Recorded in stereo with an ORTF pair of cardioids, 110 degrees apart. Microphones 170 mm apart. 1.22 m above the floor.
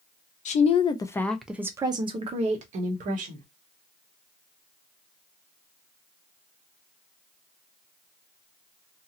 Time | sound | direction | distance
0.5 | a woman speaking | 45° left | 0.7 m